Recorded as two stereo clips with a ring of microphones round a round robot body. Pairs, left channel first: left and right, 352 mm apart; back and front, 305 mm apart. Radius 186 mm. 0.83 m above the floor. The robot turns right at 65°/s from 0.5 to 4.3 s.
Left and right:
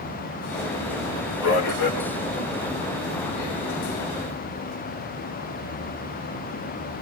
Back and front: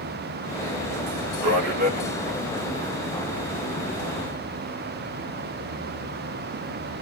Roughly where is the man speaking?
Ahead left.